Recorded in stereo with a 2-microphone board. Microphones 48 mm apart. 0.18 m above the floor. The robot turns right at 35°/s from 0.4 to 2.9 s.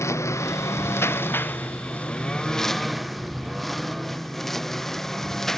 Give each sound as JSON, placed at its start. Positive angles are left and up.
{"t": 0.0, "sound": "a lawn mower", "side_deg": 70}